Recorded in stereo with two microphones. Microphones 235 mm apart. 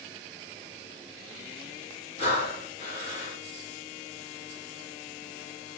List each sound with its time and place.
2.2 s breathing: 25° left (ahead or behind), 1.4 m